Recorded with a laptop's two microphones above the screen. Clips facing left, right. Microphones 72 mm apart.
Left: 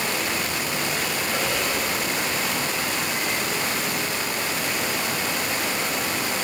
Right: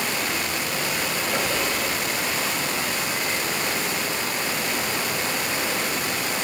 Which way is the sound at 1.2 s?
55° right (ahead or behind).